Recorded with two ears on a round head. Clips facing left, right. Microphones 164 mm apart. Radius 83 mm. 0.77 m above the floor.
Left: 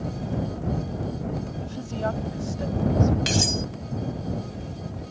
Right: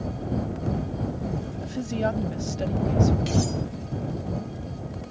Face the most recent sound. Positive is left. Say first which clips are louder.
# right 1 dB
turn(degrees=85)